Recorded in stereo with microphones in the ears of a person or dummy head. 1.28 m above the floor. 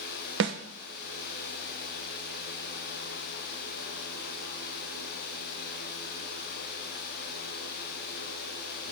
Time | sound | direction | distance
0.4 | a snare drum | 65° right (ahead or behind) | 1.0 m